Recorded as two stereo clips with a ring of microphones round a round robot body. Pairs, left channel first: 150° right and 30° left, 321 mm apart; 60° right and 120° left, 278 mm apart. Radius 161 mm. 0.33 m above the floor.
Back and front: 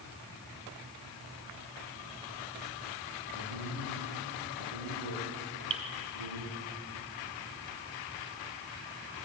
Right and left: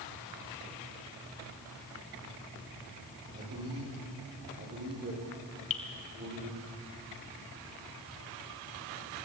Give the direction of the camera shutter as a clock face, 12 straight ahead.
I don't hear a camera shutter.